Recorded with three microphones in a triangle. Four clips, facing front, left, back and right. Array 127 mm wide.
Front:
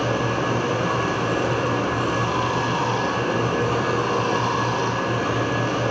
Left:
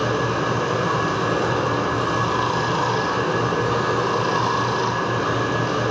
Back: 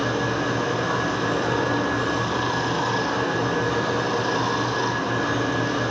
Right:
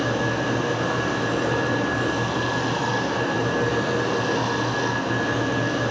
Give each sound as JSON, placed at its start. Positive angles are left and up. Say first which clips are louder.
{"t": 0.0, "sound": "running water", "louder": "left 2 dB, front 1 dB", "azimuth_deg": 80, "distance_m": 3.5}